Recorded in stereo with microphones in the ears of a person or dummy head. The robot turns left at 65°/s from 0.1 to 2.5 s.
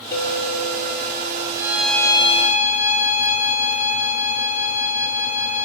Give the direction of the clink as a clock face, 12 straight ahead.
7 o'clock.